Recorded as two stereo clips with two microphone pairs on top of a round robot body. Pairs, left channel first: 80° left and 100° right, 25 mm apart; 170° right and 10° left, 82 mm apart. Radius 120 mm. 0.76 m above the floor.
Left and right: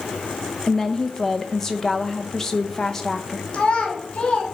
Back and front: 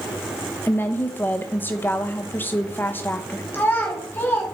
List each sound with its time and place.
0.7 s a woman speaking: 140° left, 0.8 m
3.5 s a child speaking: 130° left, 1.5 m